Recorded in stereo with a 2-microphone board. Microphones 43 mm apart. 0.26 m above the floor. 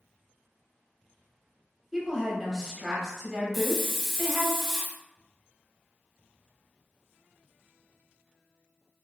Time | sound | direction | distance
1.9 | a woman speaking | 5° right (ahead or behind) | 1.0 m
3.5 | a hiss | 5° right (ahead or behind) | 0.9 m